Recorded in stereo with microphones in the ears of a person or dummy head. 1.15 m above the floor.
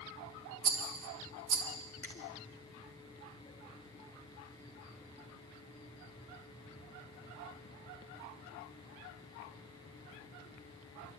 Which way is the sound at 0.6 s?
40° right (ahead or behind).